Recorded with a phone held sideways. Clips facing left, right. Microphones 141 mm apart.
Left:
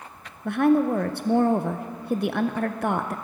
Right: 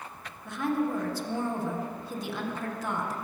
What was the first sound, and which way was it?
A woman speaking, 60° left (ahead or behind).